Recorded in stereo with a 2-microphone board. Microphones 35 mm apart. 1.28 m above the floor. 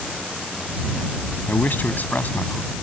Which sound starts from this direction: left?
A man speaking, at 1.5 s.